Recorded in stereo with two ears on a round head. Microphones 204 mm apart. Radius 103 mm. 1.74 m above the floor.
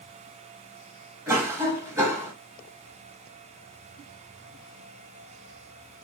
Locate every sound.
1.3 s a cough: 10° right (ahead or behind), 2 m